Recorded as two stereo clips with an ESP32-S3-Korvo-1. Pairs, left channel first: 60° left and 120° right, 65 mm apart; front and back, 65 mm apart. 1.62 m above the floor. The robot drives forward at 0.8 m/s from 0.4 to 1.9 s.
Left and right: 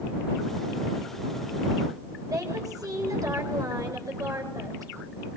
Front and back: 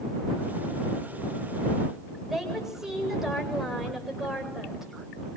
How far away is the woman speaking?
About 8 m.